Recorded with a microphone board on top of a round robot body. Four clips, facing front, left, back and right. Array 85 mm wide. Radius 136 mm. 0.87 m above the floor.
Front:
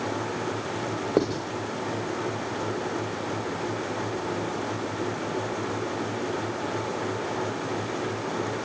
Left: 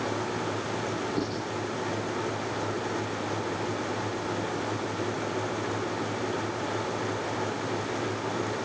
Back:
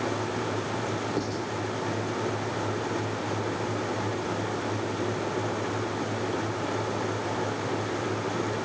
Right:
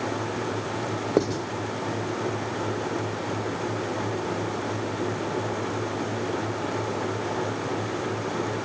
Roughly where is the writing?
Ahead right.